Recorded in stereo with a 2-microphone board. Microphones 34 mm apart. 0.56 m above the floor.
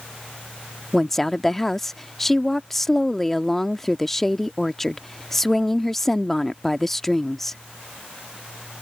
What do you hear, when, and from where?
0.9 s a woman speaking: 10° left (ahead or behind)